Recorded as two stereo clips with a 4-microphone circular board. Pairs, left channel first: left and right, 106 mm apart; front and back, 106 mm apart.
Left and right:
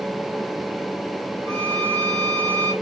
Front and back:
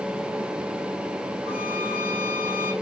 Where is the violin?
30° right, 2.5 m.